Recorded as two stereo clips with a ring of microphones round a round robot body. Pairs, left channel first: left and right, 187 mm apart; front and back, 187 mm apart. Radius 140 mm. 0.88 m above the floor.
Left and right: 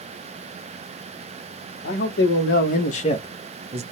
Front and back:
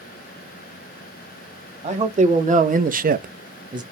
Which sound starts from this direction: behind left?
A man speaking, at 1.8 s.